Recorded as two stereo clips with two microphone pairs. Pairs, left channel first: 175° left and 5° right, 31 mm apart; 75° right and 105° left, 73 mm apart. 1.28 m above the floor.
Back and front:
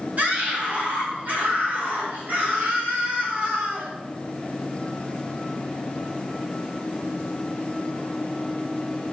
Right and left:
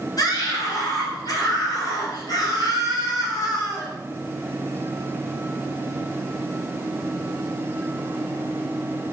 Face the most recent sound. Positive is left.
turn(degrees=-40)